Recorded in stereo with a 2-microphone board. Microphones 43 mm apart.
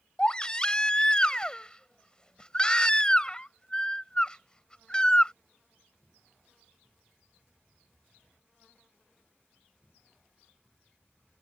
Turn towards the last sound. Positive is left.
turn(degrees=20)  # may be behind; listen again after turning